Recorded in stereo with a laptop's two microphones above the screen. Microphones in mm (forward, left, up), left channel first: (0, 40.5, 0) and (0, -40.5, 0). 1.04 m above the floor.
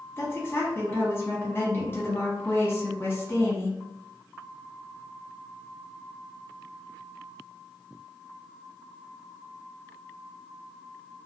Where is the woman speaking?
30° left (ahead or behind), 1.2 m.